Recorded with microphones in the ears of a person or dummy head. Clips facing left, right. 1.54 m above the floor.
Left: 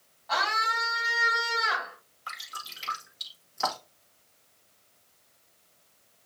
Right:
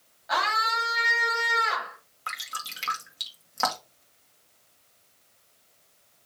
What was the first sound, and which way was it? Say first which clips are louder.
A scream: right 2 dB; 30° right (ahead or behind).